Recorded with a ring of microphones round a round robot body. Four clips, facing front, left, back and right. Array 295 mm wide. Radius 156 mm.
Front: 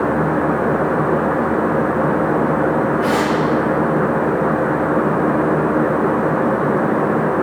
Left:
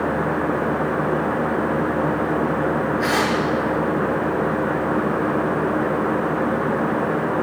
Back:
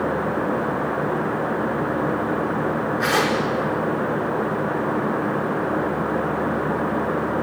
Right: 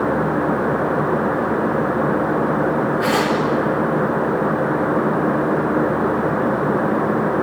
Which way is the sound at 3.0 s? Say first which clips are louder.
Right 2 dB, front 4 dB; 155° right.